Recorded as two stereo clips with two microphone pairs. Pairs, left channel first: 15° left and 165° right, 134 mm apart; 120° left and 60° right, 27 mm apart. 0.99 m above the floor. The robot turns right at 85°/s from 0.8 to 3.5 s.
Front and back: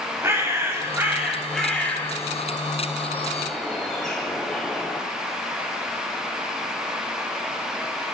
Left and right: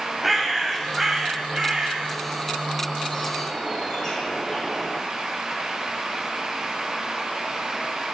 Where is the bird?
135° right, 0.8 m; by 5.0 s 95° left, 0.8 m.